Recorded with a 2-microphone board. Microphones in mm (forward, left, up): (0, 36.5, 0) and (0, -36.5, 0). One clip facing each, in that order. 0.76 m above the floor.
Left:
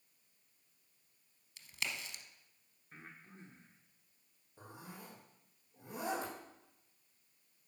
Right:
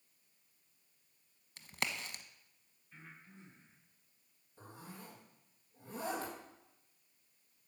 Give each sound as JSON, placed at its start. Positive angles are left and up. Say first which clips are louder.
{"t": 1.6, "sound": "a crack", "louder": "right 3 dB", "side_deg": -45, "distance_m": 1.0}
{"t": 2.9, "sound": "breathing", "louder": "left 1 dB", "side_deg": 45, "distance_m": 1.8}
{"t": 4.6, "sound": "a zipper", "louder": "even", "side_deg": 20, "distance_m": 4.5}